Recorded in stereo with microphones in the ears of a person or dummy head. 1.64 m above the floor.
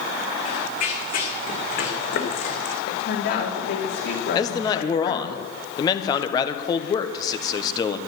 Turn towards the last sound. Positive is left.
turn(degrees=20)  # may be behind; listen again after turning